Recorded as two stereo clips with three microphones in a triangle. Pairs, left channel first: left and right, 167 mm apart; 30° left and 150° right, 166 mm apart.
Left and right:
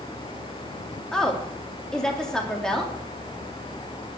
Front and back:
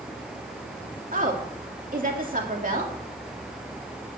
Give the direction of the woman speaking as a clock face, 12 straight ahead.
6 o'clock.